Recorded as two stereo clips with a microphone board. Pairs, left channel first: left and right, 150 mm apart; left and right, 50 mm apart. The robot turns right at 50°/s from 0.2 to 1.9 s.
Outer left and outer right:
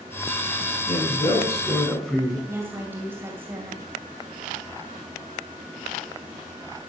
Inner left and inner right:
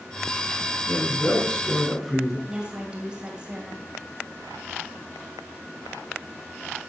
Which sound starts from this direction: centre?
A woman speaking, at 2.5 s.